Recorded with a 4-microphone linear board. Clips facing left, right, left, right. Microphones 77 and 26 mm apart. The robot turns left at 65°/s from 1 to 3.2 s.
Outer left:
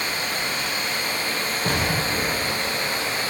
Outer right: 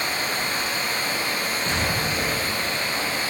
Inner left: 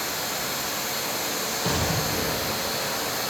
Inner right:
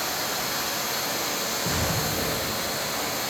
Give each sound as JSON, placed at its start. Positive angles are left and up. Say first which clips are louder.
{"t": 0.0, "sound": "running water", "louder": "outer right 1 dB, inner right 1 dB", "azimuth_deg": -145, "distance_m": 3.5}
{"t": 1.6, "sound": "an explosion", "louder": "outer left 3 dB, inner left 3 dB", "side_deg": 55, "distance_m": 2.0}